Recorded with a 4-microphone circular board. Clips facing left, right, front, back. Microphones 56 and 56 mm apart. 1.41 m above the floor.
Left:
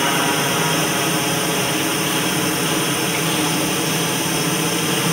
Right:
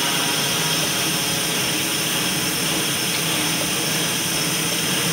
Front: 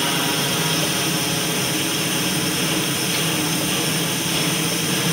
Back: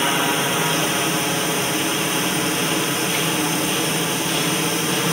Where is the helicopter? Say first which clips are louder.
Left 5 dB, back 2 dB; 130° left.